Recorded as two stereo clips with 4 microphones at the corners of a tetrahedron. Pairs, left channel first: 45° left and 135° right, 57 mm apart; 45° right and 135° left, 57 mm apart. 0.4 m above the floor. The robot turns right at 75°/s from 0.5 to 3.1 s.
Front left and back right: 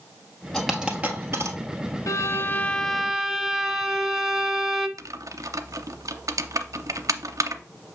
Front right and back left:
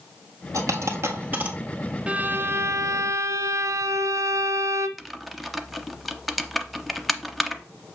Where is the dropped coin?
125° left, 1.3 m; by 1.6 s 155° right, 1.3 m.